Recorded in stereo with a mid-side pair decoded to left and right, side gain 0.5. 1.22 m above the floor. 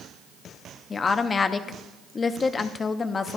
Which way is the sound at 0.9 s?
35° left.